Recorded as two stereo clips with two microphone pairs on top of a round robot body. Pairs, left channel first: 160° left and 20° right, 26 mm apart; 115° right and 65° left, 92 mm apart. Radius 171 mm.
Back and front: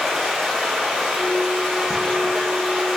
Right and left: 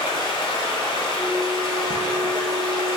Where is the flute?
155° right, 1.5 m.